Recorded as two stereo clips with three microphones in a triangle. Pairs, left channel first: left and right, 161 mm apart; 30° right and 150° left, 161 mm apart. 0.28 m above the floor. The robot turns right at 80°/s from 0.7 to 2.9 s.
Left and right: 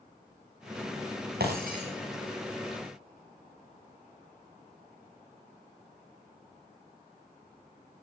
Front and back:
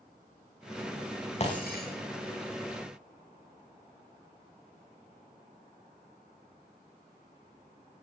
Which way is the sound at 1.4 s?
80° right.